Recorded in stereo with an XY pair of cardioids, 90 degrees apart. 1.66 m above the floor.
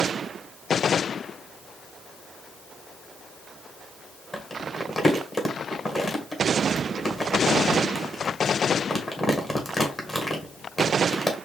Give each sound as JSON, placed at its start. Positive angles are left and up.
{"t": 4.3, "sound": "crumpling", "azimuth_deg": 30, "distance_m": 1.7}